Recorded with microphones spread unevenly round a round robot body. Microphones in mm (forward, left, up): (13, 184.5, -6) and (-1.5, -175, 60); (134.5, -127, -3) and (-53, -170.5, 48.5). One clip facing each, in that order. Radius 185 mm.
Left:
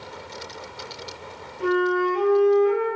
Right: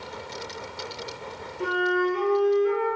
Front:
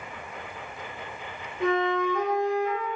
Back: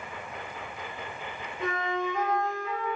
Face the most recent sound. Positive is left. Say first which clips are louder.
# left 4 dB, front 7 dB
turn(degrees=0)